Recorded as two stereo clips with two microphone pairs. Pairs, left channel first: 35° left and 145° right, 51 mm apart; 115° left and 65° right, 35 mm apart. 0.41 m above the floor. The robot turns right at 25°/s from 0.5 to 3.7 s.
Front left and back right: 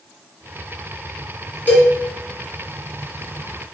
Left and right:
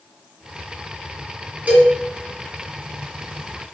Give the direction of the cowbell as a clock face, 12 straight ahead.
1 o'clock.